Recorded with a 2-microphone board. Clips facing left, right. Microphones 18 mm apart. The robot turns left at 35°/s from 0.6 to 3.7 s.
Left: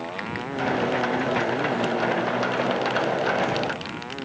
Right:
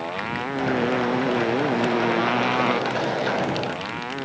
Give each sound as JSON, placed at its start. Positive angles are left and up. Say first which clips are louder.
{"t": 0.0, "sound": "a motorcycle", "louder": "right 3 dB", "side_deg": -15}